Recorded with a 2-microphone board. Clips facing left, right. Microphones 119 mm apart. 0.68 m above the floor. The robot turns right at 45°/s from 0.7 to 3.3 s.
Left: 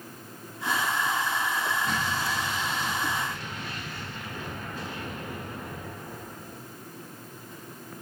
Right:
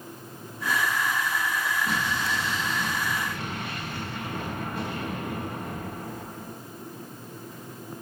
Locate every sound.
1.9 s an explosion: 175° right, 6.5 m; by 6.6 s 110° right, 6.5 m